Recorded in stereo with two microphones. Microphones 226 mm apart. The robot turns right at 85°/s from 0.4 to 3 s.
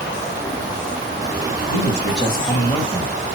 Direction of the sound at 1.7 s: 70° left.